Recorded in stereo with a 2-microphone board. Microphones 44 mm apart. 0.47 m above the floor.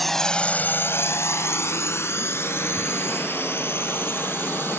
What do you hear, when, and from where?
0.0 s a drone: 5° left (ahead or behind); by 4.8 s 55° left (ahead or behind)